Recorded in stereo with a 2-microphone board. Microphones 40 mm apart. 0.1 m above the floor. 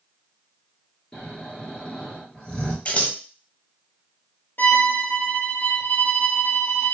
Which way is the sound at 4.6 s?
60° left (ahead or behind).